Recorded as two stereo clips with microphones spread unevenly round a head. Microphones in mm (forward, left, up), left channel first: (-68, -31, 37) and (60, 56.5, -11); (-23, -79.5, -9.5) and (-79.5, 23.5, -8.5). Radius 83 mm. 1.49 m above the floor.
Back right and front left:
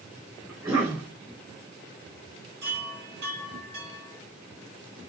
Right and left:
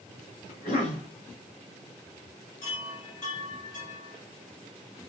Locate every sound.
0.5 s a cough: 40° right, 3.5 m
2.6 s a chime: 20° right, 5 m